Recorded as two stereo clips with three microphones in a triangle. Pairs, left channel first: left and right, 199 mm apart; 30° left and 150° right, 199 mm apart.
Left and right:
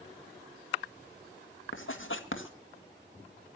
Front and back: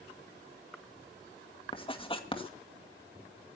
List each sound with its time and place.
1.7 s writing: 90° left, 1.9 m